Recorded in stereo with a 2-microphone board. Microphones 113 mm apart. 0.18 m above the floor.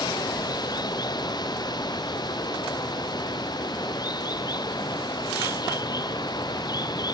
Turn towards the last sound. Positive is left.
turn(degrees=40)  # may be behind; listen again after turning